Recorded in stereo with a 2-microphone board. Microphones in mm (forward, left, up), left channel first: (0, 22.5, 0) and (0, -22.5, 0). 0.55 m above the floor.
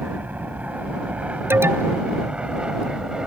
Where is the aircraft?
40° right (ahead or behind); by 3.3 s 20° right (ahead or behind).